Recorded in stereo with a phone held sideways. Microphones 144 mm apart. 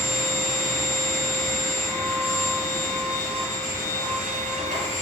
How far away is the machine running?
About 4.5 m.